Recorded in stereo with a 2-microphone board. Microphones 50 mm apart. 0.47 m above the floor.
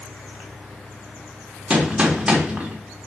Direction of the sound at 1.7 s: 20° right (ahead or behind).